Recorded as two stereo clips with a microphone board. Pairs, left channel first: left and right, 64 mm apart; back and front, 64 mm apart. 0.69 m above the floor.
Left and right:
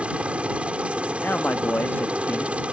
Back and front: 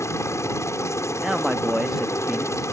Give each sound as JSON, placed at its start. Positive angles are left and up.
{"t": 0.0, "sound": "a helicopter", "azimuth_deg": -160}
{"t": 1.2, "sound": "a man speaking", "azimuth_deg": 75}